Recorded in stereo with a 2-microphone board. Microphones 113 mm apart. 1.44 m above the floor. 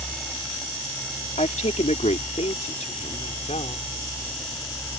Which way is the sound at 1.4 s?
85° left.